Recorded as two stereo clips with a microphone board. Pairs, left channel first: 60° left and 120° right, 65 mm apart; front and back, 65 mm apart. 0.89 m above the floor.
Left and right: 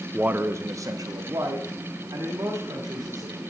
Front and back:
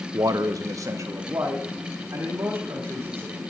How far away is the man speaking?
About 0.5 m.